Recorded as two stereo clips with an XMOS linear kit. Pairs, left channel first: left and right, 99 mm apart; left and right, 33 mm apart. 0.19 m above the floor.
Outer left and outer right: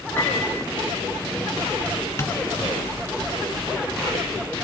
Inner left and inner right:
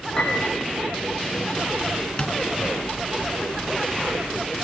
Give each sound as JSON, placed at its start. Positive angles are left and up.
{"t": 0.2, "sound": "a piano", "side_deg": 20, "distance_m": 5.5}
{"t": 2.2, "sound": "tapping", "side_deg": 30, "distance_m": 2.5}